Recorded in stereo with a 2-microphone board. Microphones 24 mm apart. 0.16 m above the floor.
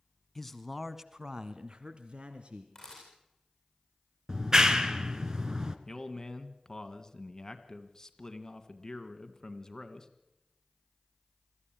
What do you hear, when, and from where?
0.3 s a man speaking: 15° left (ahead or behind), 1.2 m; by 2.6 s 60° right (ahead or behind), 2 m
2.8 s a camera shutter: 15° left (ahead or behind), 9.5 m
4.3 s a clap: 30° right (ahead or behind), 1.3 m
5.9 s a man speaking: 25° left (ahead or behind), 1.5 m